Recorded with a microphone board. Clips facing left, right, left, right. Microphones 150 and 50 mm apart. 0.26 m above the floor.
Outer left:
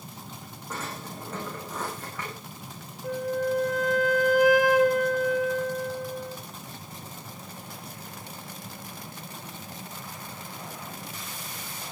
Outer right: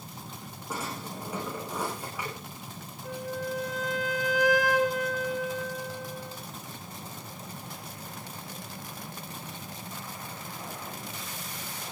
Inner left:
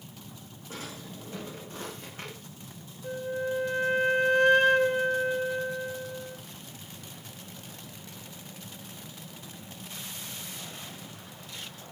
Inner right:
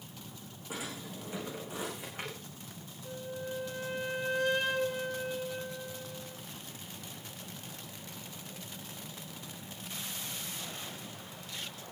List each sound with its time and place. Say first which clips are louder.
0.7 s a drawer: outer right 1 dB, even; 10° right (ahead or behind), 8 m
3.0 s a flute: outer left 7 dB, inner left 9 dB; 55° left (ahead or behind), 1.7 m